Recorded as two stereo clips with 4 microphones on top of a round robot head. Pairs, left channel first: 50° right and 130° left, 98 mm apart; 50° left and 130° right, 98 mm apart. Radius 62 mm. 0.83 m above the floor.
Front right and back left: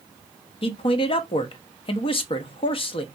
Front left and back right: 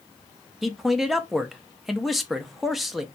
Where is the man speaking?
40° right, 0.5 m.